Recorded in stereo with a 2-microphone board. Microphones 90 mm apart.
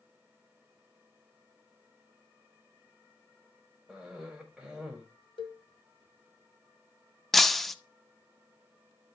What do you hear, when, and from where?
3.9 s a cough: 5° right (ahead or behind), 4 m
5.4 s a cowbell: 70° left (ahead or behind), 1.9 m
7.3 s breaking glass: 5° left (ahead or behind), 0.6 m